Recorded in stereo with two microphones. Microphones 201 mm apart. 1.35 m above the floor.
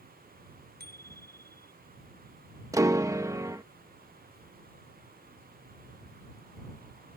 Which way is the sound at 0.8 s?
50° right (ahead or behind).